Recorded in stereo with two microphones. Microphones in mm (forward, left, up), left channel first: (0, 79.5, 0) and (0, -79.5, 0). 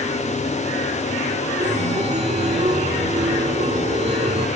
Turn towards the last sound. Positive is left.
turn(degrees=-45)  # may be behind; listen again after turning